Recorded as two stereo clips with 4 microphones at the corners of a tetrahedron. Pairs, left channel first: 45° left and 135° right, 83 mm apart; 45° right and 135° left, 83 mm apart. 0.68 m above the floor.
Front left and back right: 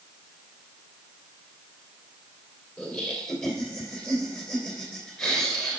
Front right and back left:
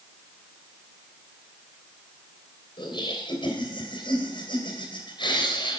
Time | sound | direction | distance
2.8 | laughter | 35° right | 3 m